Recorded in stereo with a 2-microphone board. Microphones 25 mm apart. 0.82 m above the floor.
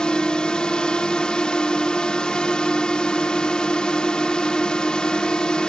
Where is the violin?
I don't hear a violin.